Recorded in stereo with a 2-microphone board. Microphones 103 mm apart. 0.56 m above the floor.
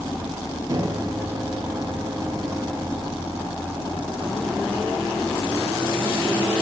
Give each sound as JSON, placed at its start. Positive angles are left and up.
{"t": 0.7, "sound": "a microwave", "side_deg": -35, "distance_m": 0.6}